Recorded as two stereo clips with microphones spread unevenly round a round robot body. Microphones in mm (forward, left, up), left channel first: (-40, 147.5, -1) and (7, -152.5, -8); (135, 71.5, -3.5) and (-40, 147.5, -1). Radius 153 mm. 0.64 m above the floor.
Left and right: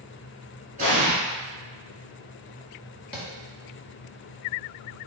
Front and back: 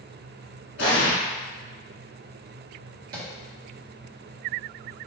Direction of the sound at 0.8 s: 15° right.